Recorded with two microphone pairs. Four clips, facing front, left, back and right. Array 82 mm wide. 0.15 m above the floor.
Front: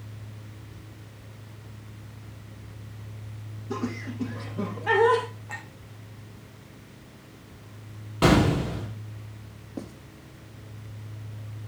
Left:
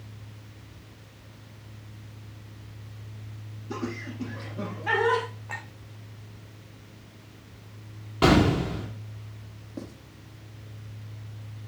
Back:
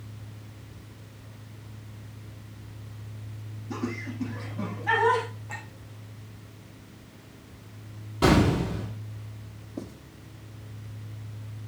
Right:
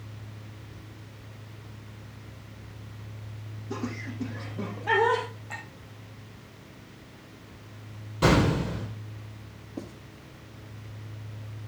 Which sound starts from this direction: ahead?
Writing, at 9.8 s.